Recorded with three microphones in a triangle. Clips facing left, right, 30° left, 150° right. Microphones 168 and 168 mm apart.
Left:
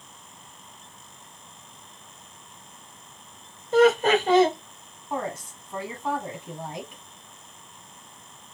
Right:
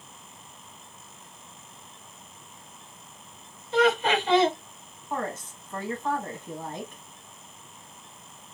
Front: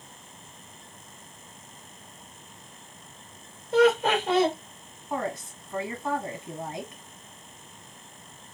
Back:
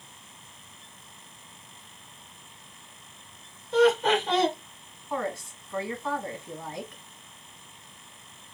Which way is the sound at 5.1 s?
35° left.